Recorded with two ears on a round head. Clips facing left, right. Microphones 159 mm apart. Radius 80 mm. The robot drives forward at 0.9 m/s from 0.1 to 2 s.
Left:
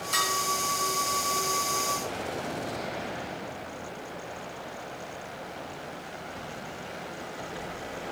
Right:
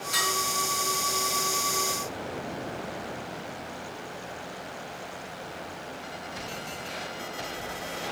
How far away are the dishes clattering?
About 4.5 m.